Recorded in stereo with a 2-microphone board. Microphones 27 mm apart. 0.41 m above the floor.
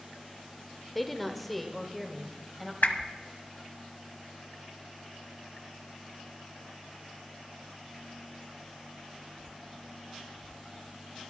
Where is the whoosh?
85° left, 0.8 m.